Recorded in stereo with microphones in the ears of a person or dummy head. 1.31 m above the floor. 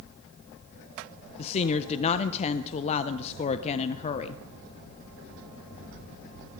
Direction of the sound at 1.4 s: 40° left (ahead or behind).